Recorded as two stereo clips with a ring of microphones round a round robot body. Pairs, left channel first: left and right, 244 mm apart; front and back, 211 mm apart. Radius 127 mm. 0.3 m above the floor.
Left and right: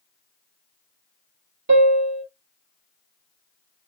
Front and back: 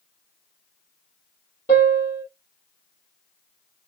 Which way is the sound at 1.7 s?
75° right.